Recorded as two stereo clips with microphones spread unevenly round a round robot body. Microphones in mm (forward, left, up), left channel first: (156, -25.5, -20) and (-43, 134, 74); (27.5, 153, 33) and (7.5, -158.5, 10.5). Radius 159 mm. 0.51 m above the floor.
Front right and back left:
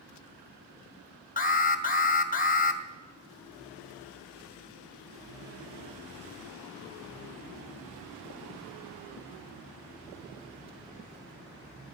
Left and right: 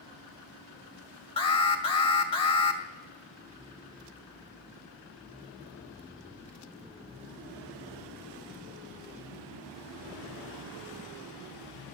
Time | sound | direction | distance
1.4 | an alarm | 10° left | 2 m